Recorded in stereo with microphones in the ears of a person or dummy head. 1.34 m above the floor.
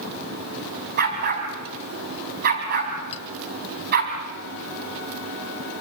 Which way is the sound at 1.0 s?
55° right (ahead or behind).